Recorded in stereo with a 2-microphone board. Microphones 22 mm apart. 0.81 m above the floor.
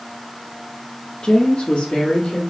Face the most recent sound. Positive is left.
turn(degrees=60)  # may be behind; listen again after turning